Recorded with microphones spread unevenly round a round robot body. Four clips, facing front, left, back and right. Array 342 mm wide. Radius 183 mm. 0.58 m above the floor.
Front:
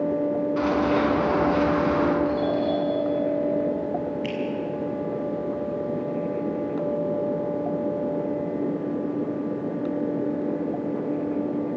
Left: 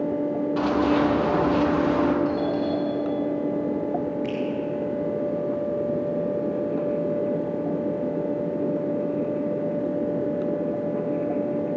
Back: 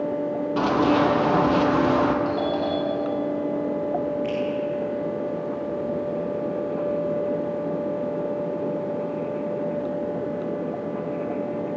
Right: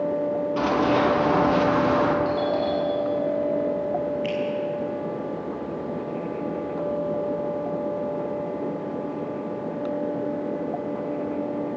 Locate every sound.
0.6 s running footsteps: 170° right, 8 m; by 2.1 s 165° right, 7 m
2.2 s a doorbell: 160° right, 8.5 m
4.2 s a finger snap: 30° left, 6 m